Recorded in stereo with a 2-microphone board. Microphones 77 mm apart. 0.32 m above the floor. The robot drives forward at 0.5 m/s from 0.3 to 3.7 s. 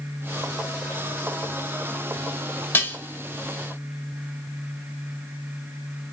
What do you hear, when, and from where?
2.7 s dishes clattering: 30° left (ahead or behind), 0.6 m; by 3.0 s 25° left (ahead or behind), 0.6 m